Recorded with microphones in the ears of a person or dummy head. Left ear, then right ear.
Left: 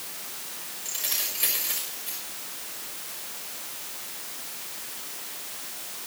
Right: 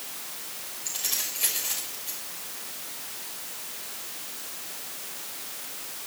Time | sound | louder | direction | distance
0.8 | keys jangling | even | 10° left (ahead or behind) | 6 m